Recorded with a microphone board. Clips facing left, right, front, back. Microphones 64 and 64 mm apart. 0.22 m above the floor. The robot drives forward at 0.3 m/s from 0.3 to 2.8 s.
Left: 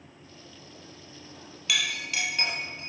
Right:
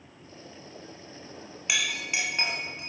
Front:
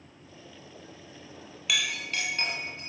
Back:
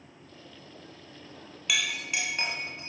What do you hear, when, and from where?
1.7 s a clink: 95° right, 0.6 m; by 2.9 s 145° right, 0.7 m